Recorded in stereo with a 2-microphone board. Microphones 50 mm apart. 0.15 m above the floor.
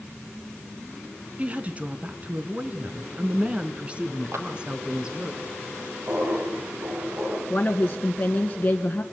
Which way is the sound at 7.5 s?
25° left (ahead or behind).